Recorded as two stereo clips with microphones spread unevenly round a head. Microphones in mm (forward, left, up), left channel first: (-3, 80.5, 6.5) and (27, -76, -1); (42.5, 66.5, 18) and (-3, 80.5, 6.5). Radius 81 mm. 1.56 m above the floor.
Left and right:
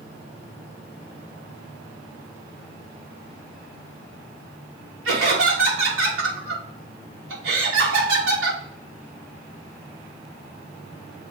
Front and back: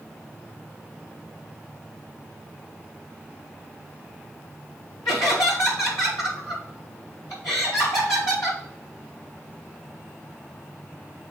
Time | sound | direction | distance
5.0 | laughter | 80° right | 4 m